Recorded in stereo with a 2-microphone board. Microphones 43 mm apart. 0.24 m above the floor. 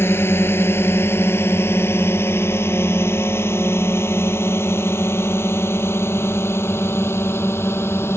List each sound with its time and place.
0.0 s a drone: 70° left (ahead or behind); by 8.2 s 80° left